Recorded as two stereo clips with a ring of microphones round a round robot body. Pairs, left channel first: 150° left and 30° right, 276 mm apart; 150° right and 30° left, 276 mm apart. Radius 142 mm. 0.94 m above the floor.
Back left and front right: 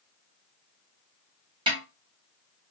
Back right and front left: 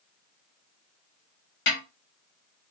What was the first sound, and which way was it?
A snare drum, 105° right.